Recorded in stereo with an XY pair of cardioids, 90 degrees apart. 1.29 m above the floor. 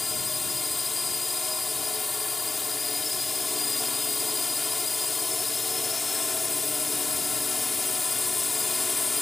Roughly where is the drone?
Ahead left.